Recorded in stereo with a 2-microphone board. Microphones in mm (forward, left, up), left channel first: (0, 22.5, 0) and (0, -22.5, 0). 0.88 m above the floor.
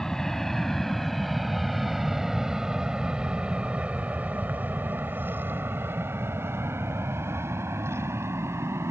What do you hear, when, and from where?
0.0 s an aircraft: 10° left (ahead or behind); by 8.9 s 80° right